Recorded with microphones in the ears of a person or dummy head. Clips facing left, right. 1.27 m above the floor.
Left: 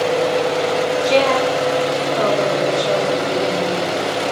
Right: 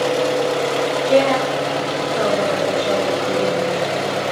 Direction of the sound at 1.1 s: 15° right (ahead or behind).